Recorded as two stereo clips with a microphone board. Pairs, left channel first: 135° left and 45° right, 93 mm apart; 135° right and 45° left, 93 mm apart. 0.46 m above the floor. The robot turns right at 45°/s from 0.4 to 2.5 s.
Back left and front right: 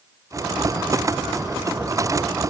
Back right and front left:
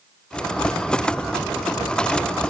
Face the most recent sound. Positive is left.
No sound to turn to.